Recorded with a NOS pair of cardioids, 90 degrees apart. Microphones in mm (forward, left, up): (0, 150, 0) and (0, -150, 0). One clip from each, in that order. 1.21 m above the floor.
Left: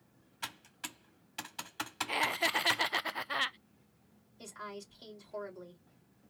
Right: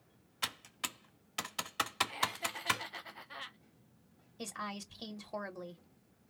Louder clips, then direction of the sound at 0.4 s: Right 4 dB; 30° right.